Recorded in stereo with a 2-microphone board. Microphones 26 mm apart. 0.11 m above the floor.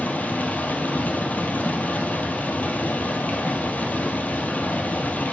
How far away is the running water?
About 1.4 m.